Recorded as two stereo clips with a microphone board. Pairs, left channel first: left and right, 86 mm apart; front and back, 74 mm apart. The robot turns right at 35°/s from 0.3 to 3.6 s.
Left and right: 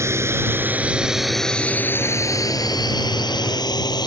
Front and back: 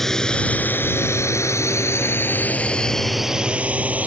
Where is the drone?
80° right; by 4.1 s 115° left.